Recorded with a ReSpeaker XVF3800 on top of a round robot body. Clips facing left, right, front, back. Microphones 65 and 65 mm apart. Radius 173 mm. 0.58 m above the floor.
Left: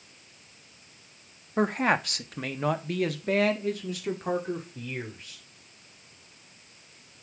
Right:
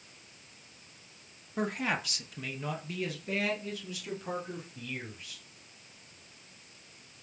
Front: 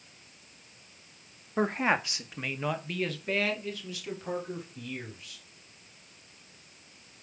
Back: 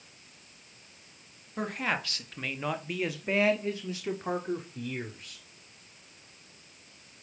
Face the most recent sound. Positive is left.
turn(degrees=140)